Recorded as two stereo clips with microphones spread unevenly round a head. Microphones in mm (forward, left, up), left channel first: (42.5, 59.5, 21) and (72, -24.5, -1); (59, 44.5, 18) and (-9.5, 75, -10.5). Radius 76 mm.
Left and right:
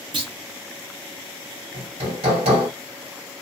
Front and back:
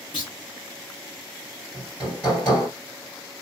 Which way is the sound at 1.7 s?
110° right.